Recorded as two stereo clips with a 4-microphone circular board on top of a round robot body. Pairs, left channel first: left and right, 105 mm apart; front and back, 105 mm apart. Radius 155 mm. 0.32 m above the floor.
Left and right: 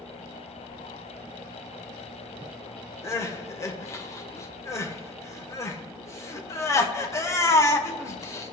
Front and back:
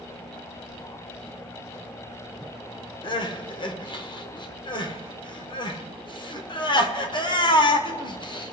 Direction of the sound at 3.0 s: 30° left.